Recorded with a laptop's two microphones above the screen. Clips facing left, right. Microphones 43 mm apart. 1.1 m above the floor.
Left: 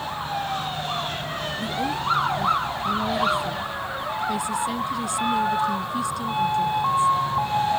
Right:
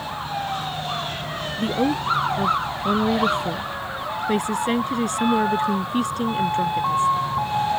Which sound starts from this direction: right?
A woman speaking, at 1.6 s.